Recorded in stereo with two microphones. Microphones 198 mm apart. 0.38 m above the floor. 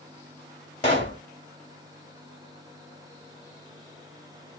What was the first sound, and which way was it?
A pop, 35° left (ahead or behind).